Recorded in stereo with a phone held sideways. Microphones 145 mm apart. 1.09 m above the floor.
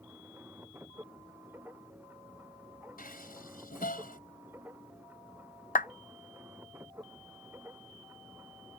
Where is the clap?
70° left (ahead or behind).